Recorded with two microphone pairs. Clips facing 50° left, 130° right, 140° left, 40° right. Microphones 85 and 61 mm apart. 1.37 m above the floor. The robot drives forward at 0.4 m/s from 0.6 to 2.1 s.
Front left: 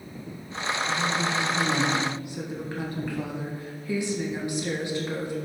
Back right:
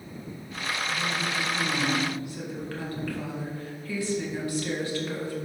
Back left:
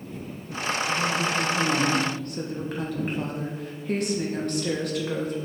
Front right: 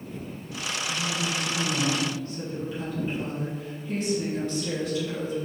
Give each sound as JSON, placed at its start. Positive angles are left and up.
{"t": 0.9, "sound": "a woman speaking", "azimuth_deg": 105, "distance_m": 1.3}